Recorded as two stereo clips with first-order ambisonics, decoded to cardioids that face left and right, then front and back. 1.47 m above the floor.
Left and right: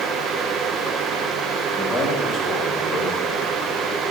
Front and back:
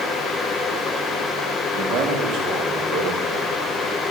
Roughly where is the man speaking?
Behind.